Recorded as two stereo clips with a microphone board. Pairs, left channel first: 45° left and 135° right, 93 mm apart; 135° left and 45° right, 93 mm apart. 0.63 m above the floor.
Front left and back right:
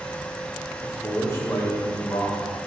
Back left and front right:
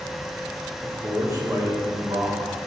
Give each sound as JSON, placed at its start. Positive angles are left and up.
{"t": 0.8, "sound": "a man speaking", "azimuth_deg": -10, "distance_m": 1.5}